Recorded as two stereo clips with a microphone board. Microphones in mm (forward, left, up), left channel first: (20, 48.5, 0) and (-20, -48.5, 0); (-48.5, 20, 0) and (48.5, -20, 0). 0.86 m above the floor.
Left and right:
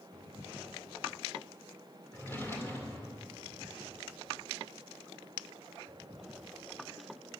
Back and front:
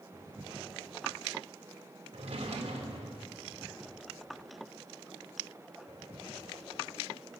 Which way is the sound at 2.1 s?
Straight ahead.